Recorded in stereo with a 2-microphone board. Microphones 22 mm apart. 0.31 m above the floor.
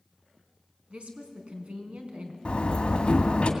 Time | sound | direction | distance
0.9 | a woman speaking | 65° right (ahead or behind) | 3 m
2.5 | a door slam | 50° left (ahead or behind) | 1.9 m